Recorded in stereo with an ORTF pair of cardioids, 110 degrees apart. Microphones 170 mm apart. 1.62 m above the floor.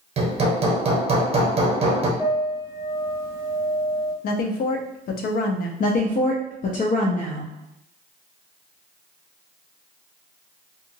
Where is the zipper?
No zipper in this recording.